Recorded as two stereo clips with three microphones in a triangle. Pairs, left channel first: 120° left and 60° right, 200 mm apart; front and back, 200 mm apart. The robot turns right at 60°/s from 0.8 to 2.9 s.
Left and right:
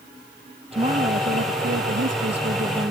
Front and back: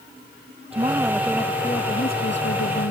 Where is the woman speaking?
120° right; by 2.9 s 5° left.